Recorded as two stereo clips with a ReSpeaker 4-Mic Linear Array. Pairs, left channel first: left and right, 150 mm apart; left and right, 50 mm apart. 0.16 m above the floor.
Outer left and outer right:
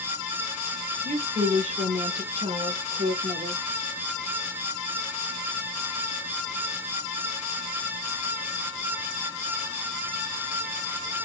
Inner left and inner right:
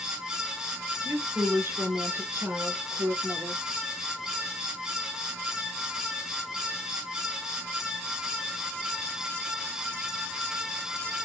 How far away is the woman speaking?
About 2.5 m.